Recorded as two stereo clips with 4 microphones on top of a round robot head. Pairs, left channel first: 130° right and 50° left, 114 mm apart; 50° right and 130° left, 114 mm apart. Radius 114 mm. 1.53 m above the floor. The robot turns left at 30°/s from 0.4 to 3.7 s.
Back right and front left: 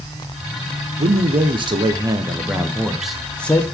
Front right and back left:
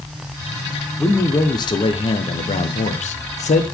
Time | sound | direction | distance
1.0 | a man speaking | 20° left | 1.0 m